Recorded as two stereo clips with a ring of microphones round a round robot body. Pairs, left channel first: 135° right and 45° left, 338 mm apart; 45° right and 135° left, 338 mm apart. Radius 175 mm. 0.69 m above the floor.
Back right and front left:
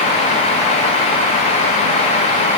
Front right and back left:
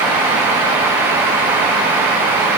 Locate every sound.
Only background noise.